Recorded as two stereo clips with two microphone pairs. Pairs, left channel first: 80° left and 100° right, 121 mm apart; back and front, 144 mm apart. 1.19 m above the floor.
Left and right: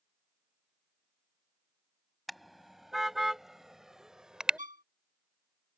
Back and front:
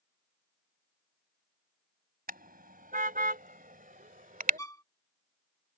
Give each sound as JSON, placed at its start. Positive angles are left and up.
{"t": 2.3, "sound": "a car horn", "azimuth_deg": -15}
{"t": 4.6, "sound": "a violin", "azimuth_deg": -115}